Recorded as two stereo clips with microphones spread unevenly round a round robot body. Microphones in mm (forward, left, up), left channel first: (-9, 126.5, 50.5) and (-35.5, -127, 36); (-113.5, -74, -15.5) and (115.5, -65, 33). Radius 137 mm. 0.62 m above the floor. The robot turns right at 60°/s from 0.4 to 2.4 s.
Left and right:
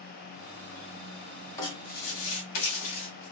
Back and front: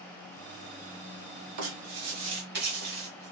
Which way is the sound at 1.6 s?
5° left.